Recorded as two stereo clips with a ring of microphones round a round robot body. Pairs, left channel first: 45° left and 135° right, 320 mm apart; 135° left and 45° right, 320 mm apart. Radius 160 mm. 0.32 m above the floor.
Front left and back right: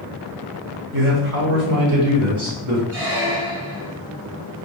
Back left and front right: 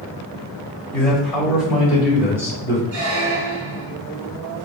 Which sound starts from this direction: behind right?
A man speaking, at 0.9 s.